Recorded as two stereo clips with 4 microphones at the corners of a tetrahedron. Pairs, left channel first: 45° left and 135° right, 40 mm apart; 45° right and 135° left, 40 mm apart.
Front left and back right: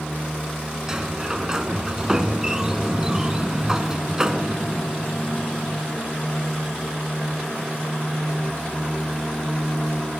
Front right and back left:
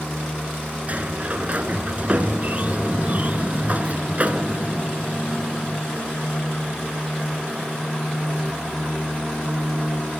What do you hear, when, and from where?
0.9 s a sliding door: 155° left, 1.5 m